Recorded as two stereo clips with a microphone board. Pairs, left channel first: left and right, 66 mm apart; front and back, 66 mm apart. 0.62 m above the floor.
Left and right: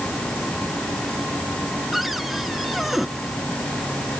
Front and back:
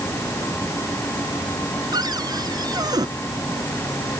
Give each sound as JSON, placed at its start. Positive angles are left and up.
{"t": 1.9, "sound": "a cupboard door", "azimuth_deg": 180}